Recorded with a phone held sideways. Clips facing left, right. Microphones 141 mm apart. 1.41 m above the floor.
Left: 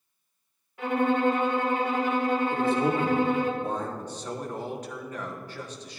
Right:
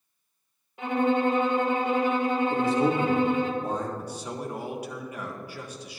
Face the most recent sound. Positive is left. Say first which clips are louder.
# even
turn(degrees=-10)  # may be behind; listen again after turning